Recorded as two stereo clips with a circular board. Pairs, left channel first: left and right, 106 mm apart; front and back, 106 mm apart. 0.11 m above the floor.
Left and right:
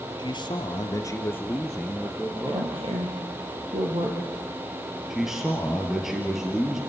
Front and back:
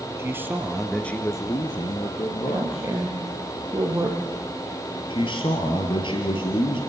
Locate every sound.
0.2 s a man speaking: 120° left, 1.9 m; by 2.9 s 20° right, 2.5 m
2.5 s a woman speaking: 120° right, 3 m
5.1 s a man speaking: 5° right, 2.5 m